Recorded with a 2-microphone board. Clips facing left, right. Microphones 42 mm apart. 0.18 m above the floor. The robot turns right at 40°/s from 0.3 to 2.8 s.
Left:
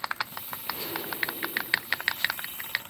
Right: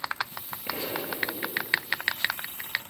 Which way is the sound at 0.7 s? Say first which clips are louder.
Right 3 dB; 140° right.